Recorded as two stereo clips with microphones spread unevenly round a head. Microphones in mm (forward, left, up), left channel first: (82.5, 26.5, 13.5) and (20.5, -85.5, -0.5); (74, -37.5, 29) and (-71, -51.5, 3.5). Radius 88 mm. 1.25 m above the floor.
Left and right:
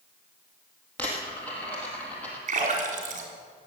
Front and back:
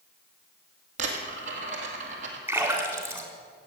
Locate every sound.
1.0 s a dropped coin: 135° left, 2.0 m
2.5 s a splash: 100° right, 3.5 m